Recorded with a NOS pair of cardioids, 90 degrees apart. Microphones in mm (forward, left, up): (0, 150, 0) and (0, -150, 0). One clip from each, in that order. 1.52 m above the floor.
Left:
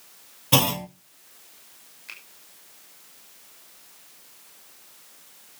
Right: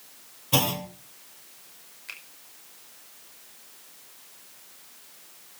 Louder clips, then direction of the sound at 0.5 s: Left 3 dB; 55° left.